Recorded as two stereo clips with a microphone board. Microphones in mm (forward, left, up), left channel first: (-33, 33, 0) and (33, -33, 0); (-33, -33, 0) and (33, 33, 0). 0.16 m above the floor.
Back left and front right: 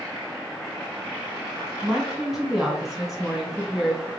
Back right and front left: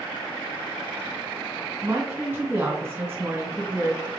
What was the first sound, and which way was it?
A woman speaking, 35° left.